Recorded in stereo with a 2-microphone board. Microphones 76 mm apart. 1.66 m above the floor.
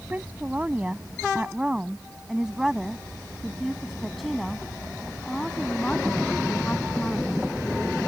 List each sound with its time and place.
0.1 s a woman speaking: 20° right (ahead or behind); by 7.4 s 15° left (ahead or behind)